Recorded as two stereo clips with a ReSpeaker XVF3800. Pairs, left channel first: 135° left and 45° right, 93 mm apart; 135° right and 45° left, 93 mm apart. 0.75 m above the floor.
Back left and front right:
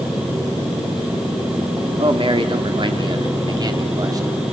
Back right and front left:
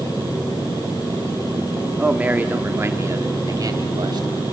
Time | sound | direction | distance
2.0 | a man speaking | 35° right | 1.9 m